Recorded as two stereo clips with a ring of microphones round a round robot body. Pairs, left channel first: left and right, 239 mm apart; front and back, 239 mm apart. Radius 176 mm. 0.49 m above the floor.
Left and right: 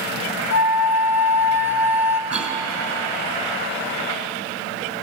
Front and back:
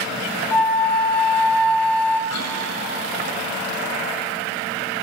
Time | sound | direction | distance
0.5 | a flute | 85° left | 1.5 m
2.3 | a cough | 5° right | 6 m